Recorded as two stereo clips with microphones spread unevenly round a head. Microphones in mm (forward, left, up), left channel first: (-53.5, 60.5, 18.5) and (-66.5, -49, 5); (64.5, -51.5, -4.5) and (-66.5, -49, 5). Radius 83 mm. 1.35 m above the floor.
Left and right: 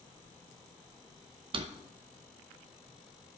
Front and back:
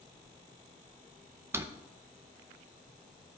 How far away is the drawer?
About 0.6 m.